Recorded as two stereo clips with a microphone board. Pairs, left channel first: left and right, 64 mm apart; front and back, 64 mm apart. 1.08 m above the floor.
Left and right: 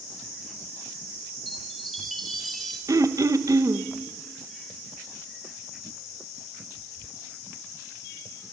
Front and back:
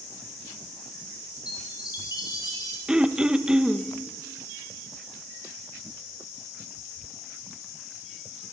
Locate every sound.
1.5 s a chime: straight ahead, 4.5 m
2.9 s throat clearing: 105° right, 1.3 m